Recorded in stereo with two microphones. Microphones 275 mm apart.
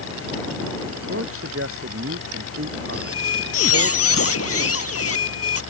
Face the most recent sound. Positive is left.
turn(degrees=60)  # may be behind; listen again after turning